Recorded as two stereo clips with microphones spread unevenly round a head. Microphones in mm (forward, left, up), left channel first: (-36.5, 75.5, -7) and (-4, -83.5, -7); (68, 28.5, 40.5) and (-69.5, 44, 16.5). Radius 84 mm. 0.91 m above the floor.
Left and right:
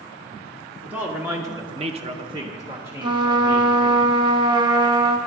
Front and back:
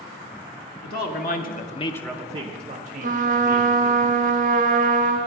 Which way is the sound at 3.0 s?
145° right.